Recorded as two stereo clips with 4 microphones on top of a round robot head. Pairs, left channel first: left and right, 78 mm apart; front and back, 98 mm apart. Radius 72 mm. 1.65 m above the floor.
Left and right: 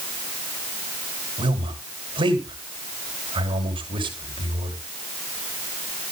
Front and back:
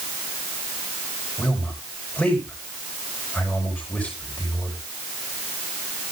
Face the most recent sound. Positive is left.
turn(degrees=-75)